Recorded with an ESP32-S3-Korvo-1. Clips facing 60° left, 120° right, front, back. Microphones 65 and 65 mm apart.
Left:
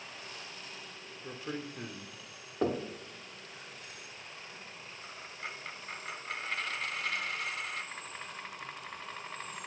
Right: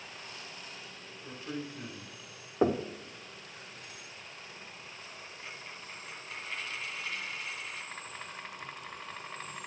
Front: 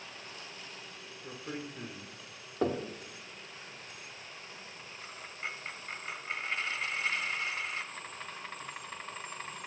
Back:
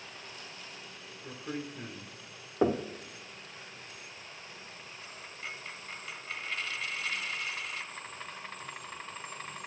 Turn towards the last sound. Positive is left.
turn(degrees=55)